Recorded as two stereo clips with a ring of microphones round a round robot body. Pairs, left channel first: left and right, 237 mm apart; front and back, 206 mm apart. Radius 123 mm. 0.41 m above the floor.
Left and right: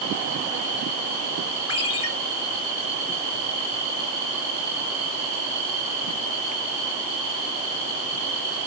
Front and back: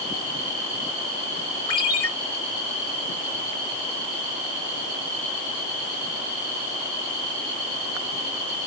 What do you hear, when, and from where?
1.7 s a ringtone: 70° left, 1.5 m